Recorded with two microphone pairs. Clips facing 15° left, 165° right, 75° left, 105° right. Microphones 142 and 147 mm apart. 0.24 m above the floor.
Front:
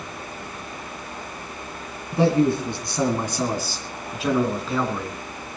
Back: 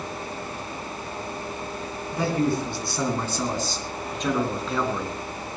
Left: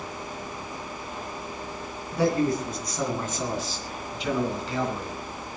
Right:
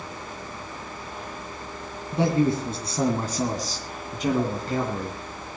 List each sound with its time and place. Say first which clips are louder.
2.1 s a man speaking: front 5 dB, right 1 dB; 45° right, 2.5 m; by 5.2 s 80° right, 3.5 m